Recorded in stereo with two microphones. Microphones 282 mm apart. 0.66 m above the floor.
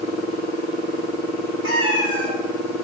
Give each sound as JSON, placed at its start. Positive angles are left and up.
{"t": 1.6, "sound": "a cat meowing", "side_deg": -50, "distance_m": 1.6}